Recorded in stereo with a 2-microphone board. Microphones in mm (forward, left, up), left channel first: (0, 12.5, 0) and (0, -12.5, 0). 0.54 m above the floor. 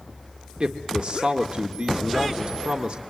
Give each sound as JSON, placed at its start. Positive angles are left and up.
{"t": 0.6, "sound": "a man speaking", "side_deg": -40, "distance_m": 1.7}